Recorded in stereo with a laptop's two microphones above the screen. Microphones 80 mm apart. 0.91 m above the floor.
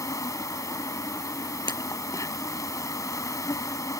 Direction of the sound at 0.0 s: 45° left (ahead or behind).